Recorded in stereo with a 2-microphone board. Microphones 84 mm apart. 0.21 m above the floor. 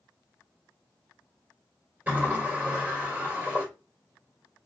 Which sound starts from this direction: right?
A sliding door, at 2.1 s.